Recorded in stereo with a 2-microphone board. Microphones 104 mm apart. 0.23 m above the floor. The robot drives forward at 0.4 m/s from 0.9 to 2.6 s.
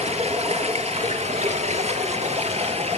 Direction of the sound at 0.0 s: 75° right (ahead or behind).